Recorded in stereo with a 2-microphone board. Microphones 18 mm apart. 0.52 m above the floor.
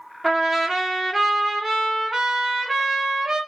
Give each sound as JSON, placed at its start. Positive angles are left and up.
{"t": 0.2, "sound": "a trumpet", "side_deg": -15, "distance_m": 0.8}